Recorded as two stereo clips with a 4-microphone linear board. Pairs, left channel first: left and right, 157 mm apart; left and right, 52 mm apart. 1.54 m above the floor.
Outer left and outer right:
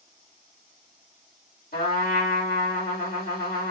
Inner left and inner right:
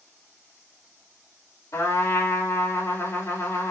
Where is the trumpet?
65° left (ahead or behind), 2 m.